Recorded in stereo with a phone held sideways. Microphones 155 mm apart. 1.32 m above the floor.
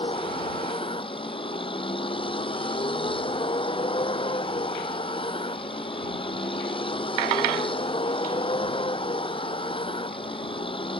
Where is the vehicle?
35° left (ahead or behind).